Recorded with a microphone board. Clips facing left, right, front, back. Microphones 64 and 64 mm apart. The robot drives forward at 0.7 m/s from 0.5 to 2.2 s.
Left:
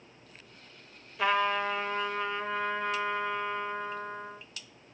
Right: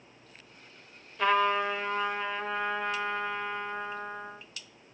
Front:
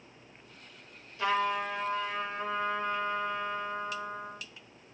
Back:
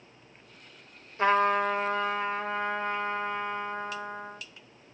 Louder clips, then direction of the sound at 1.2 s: Right 2 dB, back 6 dB; 175° left.